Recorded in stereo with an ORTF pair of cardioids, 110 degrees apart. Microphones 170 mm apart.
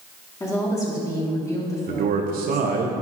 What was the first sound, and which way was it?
A woman speaking, 20° left.